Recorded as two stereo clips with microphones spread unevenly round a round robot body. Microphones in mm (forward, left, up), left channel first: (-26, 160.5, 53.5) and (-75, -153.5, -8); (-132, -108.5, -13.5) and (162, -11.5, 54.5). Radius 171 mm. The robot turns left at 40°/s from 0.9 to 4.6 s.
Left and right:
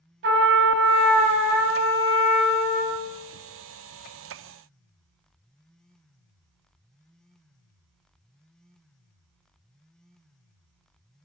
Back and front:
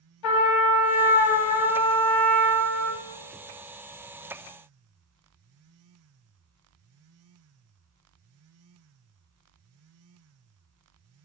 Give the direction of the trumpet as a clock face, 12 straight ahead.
5 o'clock.